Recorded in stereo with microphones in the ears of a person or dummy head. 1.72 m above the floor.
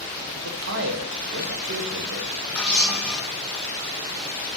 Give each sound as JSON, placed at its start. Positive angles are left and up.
{"t": 0.3, "sound": "a man speaking", "side_deg": -75, "distance_m": 1.5}
{"t": 2.5, "sound": "a camera shutter", "side_deg": 5, "distance_m": 1.1}